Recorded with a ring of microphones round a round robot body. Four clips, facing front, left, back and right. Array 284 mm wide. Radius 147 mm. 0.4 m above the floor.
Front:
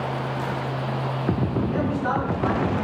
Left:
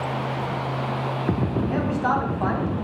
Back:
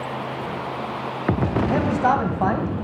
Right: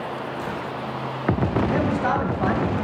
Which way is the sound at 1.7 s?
165° right.